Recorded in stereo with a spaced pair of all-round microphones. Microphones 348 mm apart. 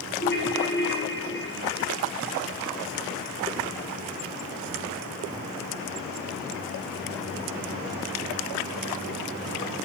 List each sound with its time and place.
0.2 s a ringtone: 30° left (ahead or behind), 1.9 m